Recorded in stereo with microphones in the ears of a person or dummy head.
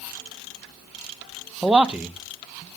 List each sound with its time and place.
1.6 s a man speaking: 10° right (ahead or behind), 0.5 m